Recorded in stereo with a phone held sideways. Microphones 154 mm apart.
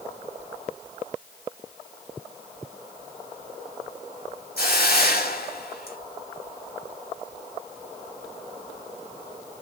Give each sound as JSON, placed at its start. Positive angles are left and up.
{"t": 4.6, "sound": "a hiss", "side_deg": 85, "distance_m": 2.5}